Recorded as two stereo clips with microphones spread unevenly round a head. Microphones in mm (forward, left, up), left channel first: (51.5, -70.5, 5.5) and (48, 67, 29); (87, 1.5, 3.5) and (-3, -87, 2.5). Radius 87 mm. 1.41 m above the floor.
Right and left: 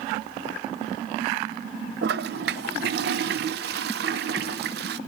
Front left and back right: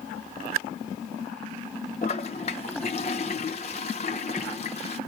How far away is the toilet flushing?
About 0.9 m.